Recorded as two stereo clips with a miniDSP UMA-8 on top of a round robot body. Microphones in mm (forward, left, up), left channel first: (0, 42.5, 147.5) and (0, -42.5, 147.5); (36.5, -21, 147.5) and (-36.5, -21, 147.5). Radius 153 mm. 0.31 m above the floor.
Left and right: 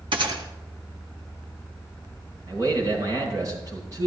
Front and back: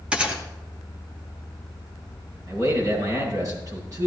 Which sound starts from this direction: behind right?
A man speaking, at 2.5 s.